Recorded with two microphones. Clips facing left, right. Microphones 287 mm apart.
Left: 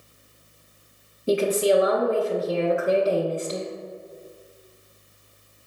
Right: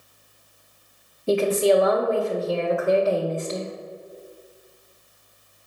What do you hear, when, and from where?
1.3 s a woman speaking: 20° left (ahead or behind), 0.9 m